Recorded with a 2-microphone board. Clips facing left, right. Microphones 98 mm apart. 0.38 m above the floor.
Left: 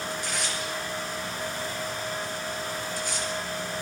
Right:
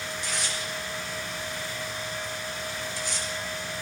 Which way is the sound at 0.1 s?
50° left (ahead or behind).